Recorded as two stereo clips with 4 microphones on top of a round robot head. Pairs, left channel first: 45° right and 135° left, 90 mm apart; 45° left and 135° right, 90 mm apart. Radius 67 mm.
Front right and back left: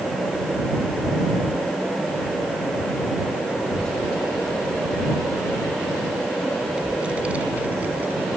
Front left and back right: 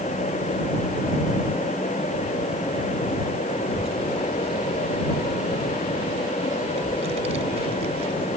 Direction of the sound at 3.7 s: 125° right.